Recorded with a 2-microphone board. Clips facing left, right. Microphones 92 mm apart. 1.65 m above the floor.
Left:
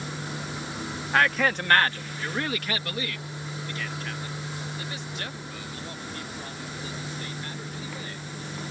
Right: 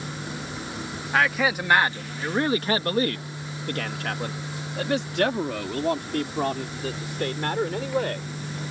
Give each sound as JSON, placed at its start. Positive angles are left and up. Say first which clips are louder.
{"t": 1.1, "sound": "a man speaking", "louder": "right 1 dB", "side_deg": 0}